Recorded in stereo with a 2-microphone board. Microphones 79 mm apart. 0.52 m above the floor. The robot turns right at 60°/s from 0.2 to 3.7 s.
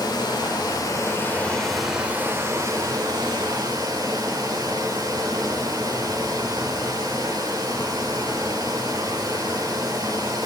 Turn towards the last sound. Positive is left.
turn(degrees=-65)